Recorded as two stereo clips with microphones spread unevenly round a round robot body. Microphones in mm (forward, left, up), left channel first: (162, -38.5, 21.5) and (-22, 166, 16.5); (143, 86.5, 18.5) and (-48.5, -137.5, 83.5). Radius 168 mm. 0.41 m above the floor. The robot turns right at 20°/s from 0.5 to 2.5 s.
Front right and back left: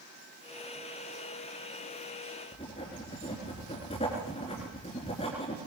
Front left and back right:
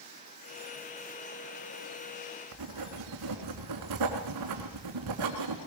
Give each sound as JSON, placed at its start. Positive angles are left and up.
{"t": 2.5, "sound": "writing", "azimuth_deg": -120, "distance_m": 3.0}